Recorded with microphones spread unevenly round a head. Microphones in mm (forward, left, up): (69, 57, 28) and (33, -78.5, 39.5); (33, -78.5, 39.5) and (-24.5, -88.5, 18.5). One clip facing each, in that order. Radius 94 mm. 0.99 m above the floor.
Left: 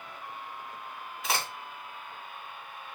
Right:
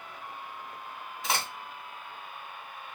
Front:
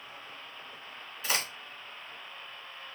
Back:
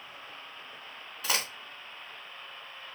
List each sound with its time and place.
1.2 s a crack: 160° left, 3.5 m